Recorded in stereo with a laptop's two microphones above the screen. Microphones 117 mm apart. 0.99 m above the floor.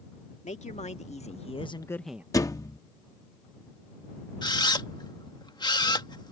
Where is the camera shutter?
40° left (ahead or behind).